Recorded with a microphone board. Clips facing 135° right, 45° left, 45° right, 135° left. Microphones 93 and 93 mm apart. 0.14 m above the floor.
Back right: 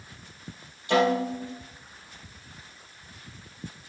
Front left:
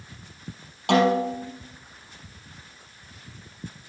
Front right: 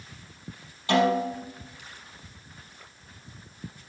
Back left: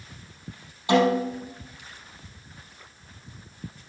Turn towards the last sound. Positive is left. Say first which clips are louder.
# front left 3 dB, back left 2 dB
turn(degrees=60)